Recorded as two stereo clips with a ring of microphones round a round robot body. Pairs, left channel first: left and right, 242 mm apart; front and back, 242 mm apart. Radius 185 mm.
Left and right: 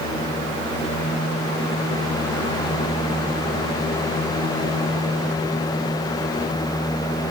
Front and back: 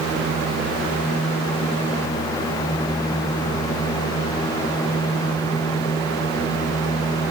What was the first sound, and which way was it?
Only background noise.